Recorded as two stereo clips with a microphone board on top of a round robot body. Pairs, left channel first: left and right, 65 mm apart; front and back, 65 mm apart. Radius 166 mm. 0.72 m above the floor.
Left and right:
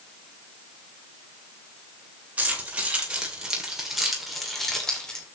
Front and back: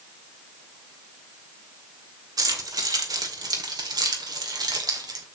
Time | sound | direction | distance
2.4 | keys jangling | 160° right | 3 m